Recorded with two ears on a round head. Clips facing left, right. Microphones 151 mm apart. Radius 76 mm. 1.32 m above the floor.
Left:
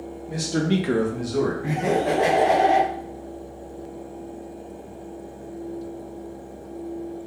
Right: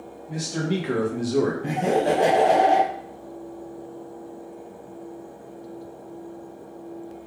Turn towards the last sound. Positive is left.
turn(degrees=-25)  # may be behind; listen again after turning